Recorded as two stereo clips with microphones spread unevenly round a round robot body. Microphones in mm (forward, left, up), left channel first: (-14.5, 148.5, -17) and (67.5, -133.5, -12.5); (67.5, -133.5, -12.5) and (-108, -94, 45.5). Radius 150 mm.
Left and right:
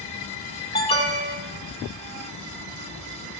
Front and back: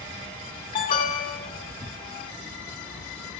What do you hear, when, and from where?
0.7 s an alarm: 40° left, 1.8 m